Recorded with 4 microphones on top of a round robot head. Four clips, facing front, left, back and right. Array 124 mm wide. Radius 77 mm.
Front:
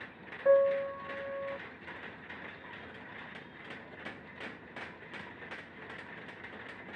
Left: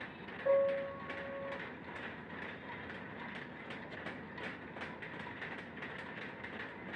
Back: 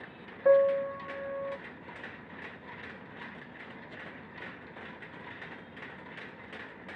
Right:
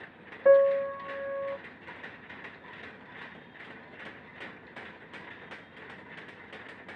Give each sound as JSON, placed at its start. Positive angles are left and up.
{"t": 0.5, "sound": "a piano", "azimuth_deg": -110, "distance_m": 0.7}